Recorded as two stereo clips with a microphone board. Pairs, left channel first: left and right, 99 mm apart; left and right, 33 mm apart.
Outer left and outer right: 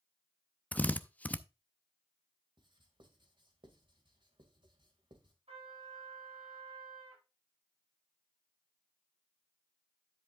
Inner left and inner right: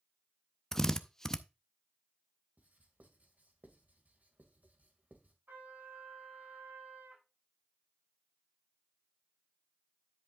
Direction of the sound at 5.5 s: 85° right.